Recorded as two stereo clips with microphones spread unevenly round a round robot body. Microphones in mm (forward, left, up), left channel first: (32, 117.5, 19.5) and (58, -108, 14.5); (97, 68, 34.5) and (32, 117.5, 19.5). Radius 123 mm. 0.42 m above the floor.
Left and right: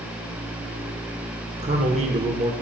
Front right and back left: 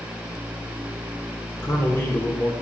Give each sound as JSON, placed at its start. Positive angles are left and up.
{"t": 1.6, "sound": "a man speaking", "azimuth_deg": -90, "distance_m": 0.8}